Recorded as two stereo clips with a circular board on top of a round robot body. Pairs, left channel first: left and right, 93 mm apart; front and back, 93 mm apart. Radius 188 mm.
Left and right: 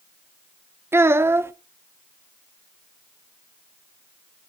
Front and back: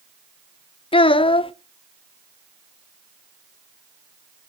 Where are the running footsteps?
I don't hear running footsteps.